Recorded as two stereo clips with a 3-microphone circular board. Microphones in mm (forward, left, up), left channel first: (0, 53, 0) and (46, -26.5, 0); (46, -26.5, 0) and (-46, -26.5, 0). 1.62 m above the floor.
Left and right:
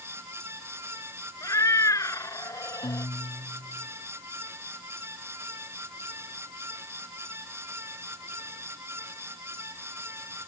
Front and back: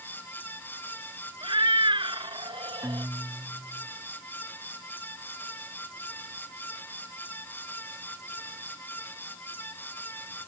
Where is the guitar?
115° left.